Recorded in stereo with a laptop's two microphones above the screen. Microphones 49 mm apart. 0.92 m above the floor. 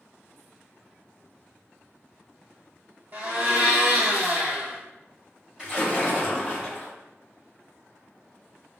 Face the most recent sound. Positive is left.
turn(degrees=-20)  # may be behind; listen again after turning